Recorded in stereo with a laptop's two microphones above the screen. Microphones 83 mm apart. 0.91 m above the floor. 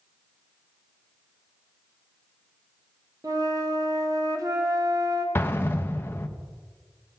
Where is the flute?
45° right (ahead or behind), 1.1 m.